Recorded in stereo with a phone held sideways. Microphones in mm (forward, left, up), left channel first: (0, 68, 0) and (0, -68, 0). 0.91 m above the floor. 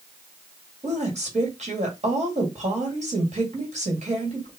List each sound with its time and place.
0.8 s a woman speaking: 55° right (ahead or behind), 1.8 m